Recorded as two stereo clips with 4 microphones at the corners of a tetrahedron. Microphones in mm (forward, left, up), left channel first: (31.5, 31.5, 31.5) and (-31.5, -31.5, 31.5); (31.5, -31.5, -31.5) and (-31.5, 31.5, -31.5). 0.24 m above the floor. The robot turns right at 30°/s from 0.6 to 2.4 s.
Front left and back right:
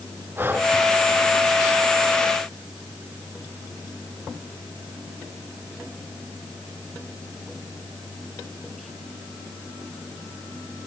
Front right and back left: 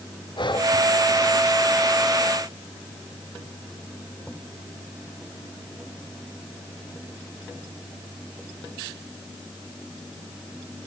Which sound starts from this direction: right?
Breathing, at 0.4 s.